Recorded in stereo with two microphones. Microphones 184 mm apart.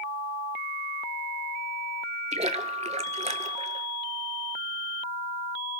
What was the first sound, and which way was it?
A splash, 40° right (ahead or behind).